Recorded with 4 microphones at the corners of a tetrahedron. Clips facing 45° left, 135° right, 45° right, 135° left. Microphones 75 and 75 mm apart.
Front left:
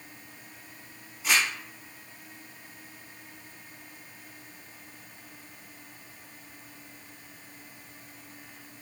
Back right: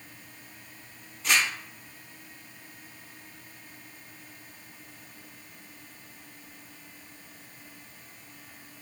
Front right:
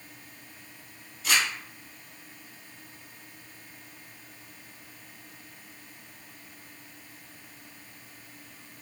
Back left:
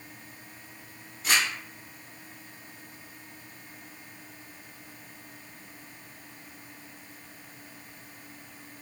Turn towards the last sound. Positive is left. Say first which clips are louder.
# even, even
turn(degrees=120)